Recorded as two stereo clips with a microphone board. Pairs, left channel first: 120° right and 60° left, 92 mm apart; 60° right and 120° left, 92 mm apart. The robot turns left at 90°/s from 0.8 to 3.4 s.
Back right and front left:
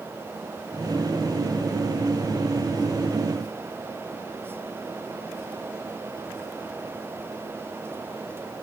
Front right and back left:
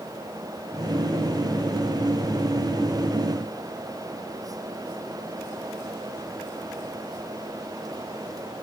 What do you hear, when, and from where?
Only background noise.